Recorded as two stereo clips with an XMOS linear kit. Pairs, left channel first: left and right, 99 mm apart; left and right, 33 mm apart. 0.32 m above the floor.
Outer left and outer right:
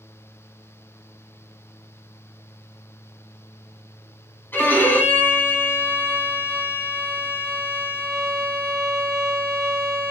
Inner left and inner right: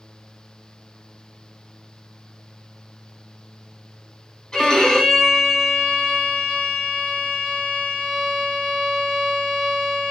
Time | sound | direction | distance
4.5 | a violin | 20° left (ahead or behind) | 1.1 m